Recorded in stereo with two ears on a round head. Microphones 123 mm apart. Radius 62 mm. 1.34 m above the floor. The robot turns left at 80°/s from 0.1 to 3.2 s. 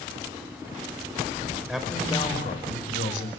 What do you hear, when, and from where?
1.7 s a man speaking: 170° right, 4.5 m; by 3.3 s 65° left, 4.5 m